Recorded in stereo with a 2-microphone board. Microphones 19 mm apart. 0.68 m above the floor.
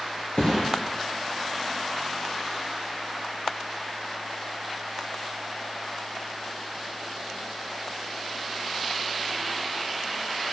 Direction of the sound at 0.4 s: 60° left (ahead or behind).